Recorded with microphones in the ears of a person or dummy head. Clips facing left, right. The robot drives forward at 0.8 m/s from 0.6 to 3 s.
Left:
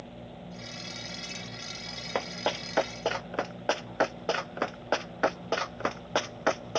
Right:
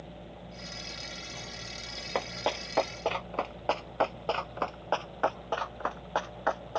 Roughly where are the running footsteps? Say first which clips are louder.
Left 1 dB; centre.